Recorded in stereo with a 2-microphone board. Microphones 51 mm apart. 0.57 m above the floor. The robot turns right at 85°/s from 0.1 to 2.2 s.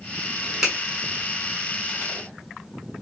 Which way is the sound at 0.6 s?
10° right (ahead or behind).